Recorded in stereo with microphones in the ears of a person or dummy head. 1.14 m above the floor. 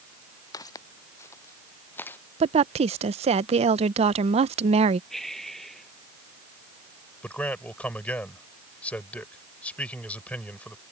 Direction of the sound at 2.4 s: 30° right (ahead or behind).